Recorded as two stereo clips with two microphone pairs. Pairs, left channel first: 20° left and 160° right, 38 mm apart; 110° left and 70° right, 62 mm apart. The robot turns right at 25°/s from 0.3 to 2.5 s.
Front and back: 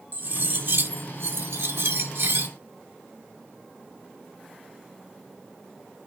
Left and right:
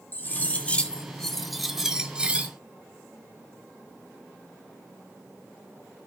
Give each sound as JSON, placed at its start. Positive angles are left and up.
{"t": 0.1, "sound": "cutlery clinking", "azimuth_deg": 165, "distance_m": 1.0}